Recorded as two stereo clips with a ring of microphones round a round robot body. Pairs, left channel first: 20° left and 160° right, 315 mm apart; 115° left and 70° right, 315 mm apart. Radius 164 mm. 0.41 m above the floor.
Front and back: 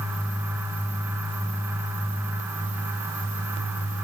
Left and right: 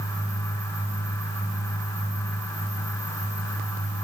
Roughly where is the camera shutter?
I don't hear a camera shutter.